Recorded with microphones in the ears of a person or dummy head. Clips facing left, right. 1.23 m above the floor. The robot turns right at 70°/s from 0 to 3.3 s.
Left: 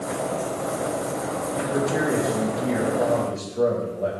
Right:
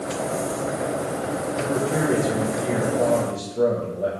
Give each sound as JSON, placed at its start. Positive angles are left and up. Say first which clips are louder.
{"t": 1.6, "sound": "a man speaking", "louder": "even", "azimuth_deg": -140, "distance_m": 0.8}